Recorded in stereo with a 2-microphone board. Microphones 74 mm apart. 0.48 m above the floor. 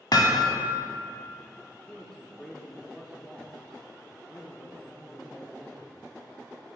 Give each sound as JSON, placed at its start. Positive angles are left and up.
{"t": 0.1, "sound": "hammering", "side_deg": 65, "distance_m": 0.7}
{"t": 1.7, "sound": "a man speaking", "side_deg": 10, "distance_m": 0.8}